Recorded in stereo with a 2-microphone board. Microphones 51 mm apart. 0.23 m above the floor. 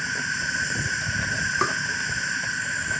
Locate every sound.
0.0 s an insect: centre (ahead or behind)
1.6 s tapping: centre (ahead or behind)